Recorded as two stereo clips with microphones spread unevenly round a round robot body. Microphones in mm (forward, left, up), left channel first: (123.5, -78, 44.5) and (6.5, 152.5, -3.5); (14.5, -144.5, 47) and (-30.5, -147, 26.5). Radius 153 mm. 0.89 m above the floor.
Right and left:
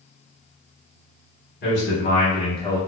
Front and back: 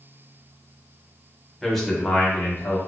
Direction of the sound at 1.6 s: 110° right.